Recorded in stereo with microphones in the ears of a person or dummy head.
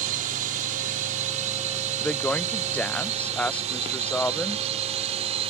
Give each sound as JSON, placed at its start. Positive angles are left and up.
{"t": 0.0, "sound": "a drone", "side_deg": -45}
{"t": 2.0, "sound": "a woman speaking", "side_deg": 10}